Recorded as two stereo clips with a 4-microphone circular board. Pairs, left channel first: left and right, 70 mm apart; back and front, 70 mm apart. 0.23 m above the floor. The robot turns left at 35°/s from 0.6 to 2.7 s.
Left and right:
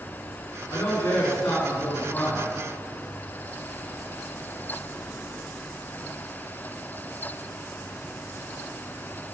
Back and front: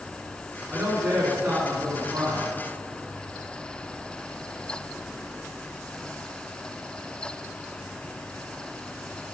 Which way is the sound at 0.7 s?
85° left.